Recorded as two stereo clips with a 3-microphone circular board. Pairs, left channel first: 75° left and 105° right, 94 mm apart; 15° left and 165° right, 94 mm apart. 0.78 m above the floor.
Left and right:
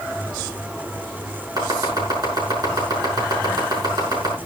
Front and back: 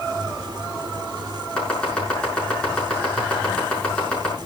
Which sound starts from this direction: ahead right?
Chopping, at 1.6 s.